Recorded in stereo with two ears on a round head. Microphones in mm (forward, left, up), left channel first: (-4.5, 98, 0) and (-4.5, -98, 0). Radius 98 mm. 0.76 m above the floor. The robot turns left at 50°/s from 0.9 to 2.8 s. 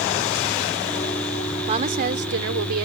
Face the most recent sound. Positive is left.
turn(degrees=-85)